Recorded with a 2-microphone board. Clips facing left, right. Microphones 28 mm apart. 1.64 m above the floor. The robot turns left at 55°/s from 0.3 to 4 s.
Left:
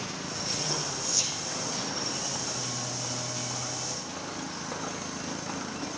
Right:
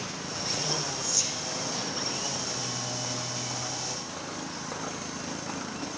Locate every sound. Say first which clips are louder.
1.0 s whispering: even; 30° left (ahead or behind), 1.6 m; by 1.4 s 10° left (ahead or behind), 1.6 m